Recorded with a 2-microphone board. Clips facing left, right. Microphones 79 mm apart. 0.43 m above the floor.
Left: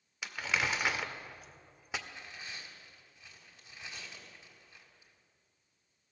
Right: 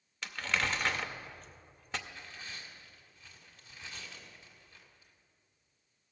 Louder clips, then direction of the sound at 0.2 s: Even; 10° left (ahead or behind).